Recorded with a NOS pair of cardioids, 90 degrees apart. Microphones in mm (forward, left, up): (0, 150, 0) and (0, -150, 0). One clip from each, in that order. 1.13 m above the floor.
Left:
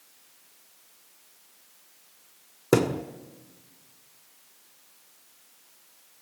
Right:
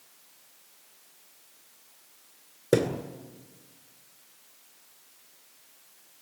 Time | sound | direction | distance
2.7 | a thud | 35° left | 1.6 m